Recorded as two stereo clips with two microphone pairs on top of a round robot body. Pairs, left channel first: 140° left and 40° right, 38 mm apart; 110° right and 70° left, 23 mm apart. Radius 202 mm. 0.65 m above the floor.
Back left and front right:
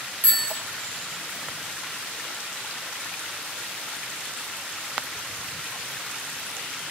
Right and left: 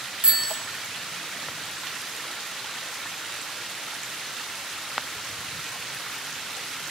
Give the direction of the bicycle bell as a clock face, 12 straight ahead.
9 o'clock.